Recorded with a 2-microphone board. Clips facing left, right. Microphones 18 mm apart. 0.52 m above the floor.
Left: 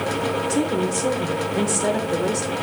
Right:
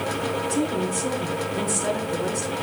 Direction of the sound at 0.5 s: 50° left (ahead or behind).